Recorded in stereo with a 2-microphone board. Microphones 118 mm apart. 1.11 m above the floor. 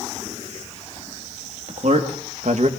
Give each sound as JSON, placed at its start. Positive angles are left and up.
{"t": 1.7, "sound": "a man speaking", "side_deg": -65, "distance_m": 2.5}